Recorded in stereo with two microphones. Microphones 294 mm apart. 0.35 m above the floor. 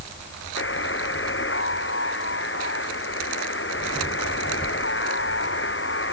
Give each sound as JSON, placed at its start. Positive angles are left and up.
{"t": 0.6, "sound": "a buzzer", "side_deg": 40}